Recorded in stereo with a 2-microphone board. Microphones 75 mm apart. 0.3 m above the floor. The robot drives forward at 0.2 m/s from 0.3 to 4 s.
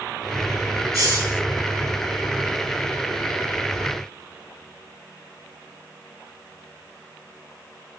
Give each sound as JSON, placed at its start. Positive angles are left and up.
{"t": 0.9, "sound": "a hiss", "side_deg": -45, "distance_m": 4.0}